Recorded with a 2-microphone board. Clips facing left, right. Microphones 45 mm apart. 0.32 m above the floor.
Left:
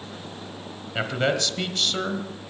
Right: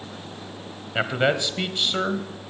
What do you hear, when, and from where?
0.9 s a man speaking: 15° right (ahead or behind), 1.3 m